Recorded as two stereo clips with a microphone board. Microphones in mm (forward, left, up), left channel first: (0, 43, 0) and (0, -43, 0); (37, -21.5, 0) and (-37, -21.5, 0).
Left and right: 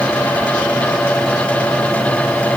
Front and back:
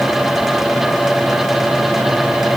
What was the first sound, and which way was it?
Only background noise.